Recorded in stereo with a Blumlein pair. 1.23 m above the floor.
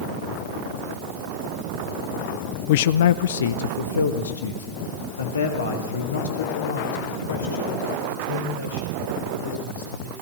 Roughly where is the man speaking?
Ahead left.